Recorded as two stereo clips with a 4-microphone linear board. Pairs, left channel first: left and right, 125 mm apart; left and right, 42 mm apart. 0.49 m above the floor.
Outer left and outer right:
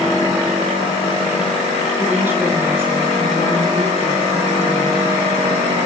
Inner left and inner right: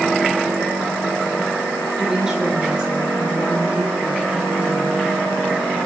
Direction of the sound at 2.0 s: 15° right (ahead or behind).